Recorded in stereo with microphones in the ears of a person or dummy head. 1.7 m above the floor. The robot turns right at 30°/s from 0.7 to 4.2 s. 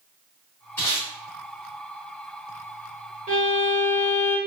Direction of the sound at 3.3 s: 40° right (ahead or behind).